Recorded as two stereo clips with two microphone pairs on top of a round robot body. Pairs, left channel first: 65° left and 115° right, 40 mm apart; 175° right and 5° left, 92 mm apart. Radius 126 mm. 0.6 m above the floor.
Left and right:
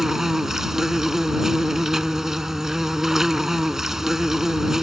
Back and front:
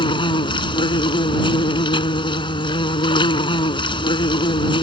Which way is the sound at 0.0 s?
165° left.